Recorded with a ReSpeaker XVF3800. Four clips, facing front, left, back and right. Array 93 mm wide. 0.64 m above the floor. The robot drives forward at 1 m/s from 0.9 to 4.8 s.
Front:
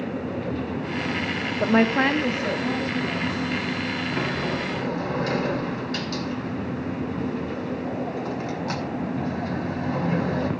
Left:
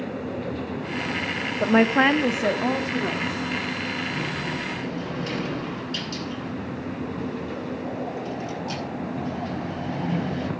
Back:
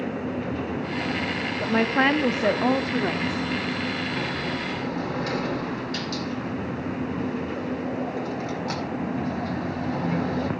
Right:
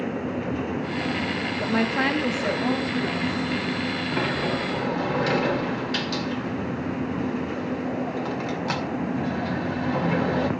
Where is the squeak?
No squeak in this recording.